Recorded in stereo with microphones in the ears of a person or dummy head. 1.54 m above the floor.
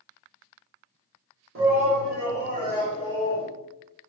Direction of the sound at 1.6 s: 80° right.